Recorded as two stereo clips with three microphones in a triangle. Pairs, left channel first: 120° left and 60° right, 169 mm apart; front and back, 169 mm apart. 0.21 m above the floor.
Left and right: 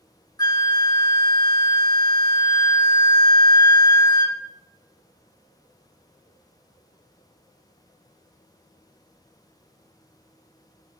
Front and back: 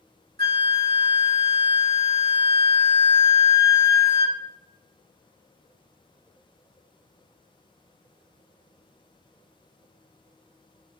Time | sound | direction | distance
0.4 | a flute | straight behind | 1.0 m